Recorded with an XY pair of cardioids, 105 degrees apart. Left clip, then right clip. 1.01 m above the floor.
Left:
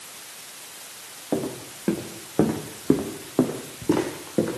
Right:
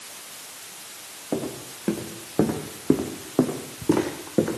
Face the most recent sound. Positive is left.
turn(degrees=-10)